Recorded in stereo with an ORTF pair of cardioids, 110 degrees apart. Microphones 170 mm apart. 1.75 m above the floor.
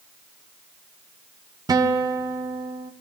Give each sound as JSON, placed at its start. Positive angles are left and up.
{"t": 1.7, "sound": "a guitar", "azimuth_deg": -20, "distance_m": 1.0}